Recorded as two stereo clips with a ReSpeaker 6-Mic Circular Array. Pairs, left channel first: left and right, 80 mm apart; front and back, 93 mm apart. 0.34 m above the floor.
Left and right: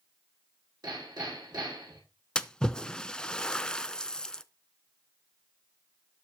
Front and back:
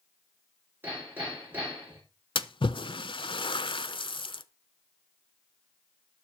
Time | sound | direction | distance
0.8 | hammering | 115° right | 9.5 m
2.4 | a splash | 10° left | 0.6 m